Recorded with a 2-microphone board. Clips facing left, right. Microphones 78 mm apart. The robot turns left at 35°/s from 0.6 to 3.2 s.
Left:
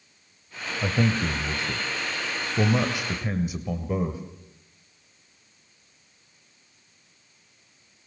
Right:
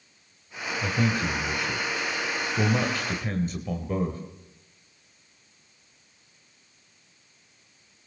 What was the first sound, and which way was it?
A man speaking, 95° left.